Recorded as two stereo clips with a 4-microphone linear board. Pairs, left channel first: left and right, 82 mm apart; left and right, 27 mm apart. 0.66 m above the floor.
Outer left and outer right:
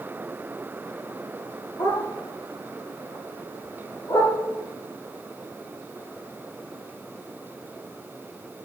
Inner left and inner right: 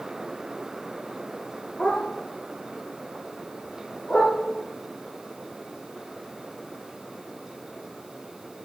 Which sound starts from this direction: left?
A dog barking, at 1.8 s.